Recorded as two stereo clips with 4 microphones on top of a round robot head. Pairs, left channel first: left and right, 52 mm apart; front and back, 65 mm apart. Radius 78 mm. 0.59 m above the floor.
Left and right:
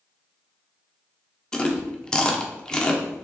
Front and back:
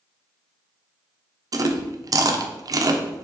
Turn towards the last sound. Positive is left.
turn(degrees=165)